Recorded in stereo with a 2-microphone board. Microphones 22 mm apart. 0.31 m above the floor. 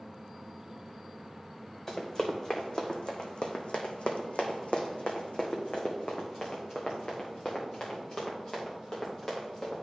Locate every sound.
1.9 s running footsteps: 20° left (ahead or behind), 1.6 m; by 9.8 s 40° left (ahead or behind), 3.5 m